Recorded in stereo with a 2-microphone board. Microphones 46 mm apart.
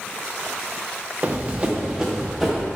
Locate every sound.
1.2 s running footsteps: 30° right (ahead or behind), 1.3 m; by 2.7 s 5° right (ahead or behind), 2.5 m